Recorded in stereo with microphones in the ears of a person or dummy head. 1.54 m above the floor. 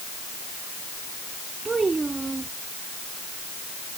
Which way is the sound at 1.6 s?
5° right (ahead or behind).